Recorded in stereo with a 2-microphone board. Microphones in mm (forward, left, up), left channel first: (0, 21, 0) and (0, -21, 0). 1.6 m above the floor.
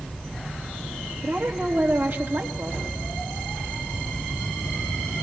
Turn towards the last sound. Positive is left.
turn(degrees=-55)  # may be behind; listen again after turning